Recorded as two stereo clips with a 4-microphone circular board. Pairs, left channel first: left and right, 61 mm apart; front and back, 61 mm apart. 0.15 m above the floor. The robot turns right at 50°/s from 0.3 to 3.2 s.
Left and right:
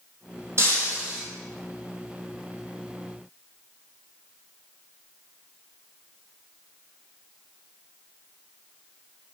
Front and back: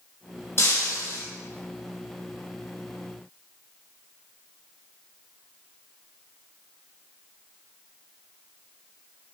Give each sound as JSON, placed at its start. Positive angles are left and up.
{"t": 0.6, "sound": "breaking glass", "azimuth_deg": -50, "distance_m": 3.5}